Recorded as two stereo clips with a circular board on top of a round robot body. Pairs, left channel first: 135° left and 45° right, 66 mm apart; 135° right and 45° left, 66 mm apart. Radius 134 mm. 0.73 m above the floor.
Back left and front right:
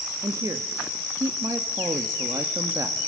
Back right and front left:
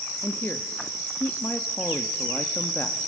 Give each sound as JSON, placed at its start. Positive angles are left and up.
{"t": 0.2, "sound": "a woman speaking", "azimuth_deg": -75, "distance_m": 1.2}